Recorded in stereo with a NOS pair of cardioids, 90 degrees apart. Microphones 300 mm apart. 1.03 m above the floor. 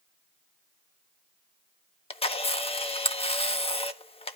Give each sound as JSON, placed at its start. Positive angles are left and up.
{"t": 2.1, "sound": "a camera shutter", "azimuth_deg": 20, "distance_m": 1.3}